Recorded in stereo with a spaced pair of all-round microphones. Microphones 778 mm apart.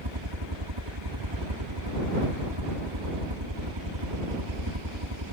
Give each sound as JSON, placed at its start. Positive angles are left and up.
{"t": 0.0, "sound": "a helicopter", "side_deg": -30}